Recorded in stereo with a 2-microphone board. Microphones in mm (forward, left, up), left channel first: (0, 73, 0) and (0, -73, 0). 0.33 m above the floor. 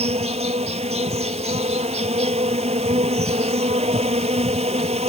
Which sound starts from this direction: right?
An insect, at 0.0 s.